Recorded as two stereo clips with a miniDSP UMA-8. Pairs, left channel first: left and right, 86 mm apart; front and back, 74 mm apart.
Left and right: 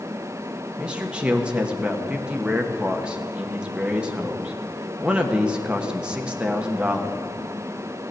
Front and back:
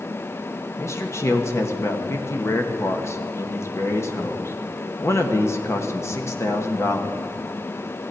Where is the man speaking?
20° right, 1.1 m.